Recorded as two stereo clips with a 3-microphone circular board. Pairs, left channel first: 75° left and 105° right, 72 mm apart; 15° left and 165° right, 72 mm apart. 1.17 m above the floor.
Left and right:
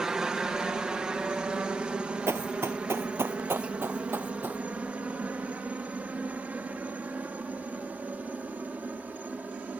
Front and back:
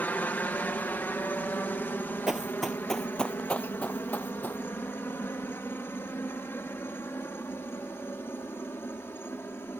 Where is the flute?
I don't hear a flute.